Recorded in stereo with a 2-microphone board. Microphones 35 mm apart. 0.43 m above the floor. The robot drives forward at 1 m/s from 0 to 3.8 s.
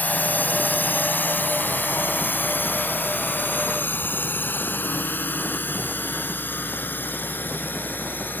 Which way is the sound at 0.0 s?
60° left (ahead or behind).